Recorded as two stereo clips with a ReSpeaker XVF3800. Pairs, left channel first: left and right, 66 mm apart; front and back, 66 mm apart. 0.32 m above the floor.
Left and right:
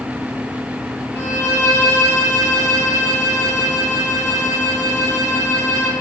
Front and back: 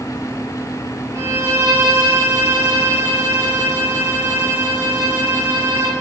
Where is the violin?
140° left, 2.5 m.